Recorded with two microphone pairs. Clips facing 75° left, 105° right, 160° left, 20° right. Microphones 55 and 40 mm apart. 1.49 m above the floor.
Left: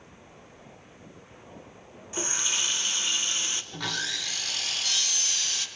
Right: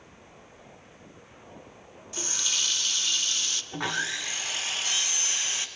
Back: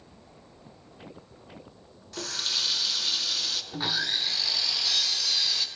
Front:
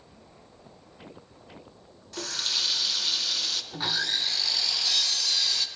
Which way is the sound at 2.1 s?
90° left.